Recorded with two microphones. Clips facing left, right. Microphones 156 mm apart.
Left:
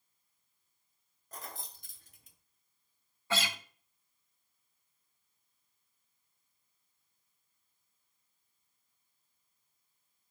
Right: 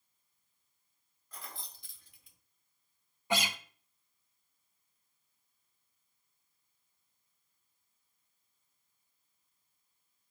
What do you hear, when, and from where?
1.3 s keys jangling: 45° left (ahead or behind), 0.8 m
3.3 s a guitar: 15° right (ahead or behind), 0.5 m